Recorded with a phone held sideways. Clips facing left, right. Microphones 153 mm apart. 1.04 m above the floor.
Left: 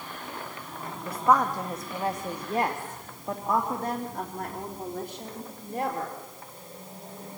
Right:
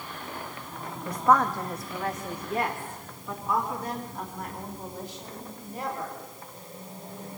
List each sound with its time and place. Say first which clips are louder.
1.1 s a woman speaking: right 1 dB; 5° left (ahead or behind), 1.5 m; by 6.2 s 65° left (ahead or behind), 3.5 m